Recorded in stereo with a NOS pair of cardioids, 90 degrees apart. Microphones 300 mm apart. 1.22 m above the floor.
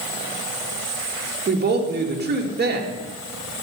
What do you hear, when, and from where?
1.5 s a woman speaking: 35° right, 2.5 m